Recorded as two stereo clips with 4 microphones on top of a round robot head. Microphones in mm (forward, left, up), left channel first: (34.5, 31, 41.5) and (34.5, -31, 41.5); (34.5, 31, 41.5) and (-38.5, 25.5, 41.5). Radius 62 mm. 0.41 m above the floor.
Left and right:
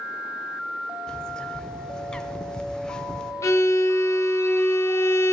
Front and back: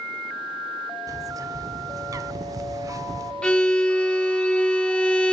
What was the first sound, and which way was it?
A bird, 165° left.